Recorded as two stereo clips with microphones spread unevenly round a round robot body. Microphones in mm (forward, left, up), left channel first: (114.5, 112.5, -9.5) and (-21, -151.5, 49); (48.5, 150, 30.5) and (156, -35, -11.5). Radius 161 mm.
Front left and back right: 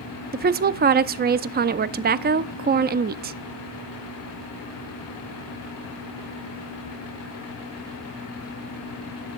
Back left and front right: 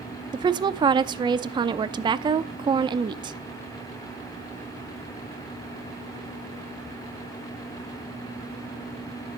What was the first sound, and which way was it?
A woman speaking, 65° right.